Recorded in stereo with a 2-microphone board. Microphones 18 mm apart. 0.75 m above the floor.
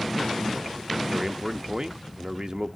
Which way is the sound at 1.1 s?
45° right (ahead or behind).